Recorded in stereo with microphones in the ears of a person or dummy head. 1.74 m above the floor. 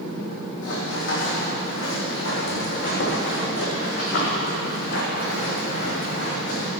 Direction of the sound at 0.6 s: 60° left (ahead or behind).